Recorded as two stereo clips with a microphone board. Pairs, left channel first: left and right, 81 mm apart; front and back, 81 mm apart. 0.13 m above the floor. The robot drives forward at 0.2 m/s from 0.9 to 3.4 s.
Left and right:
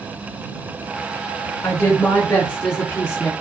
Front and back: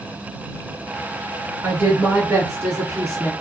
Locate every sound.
1.6 s a woman speaking: 115° left, 1.6 m; by 3.3 s 135° left, 1.7 m